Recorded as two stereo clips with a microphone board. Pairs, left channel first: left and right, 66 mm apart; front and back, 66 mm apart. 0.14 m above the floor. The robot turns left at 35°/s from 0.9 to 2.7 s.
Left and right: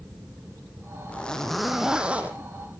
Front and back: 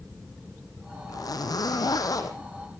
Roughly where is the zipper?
Ahead.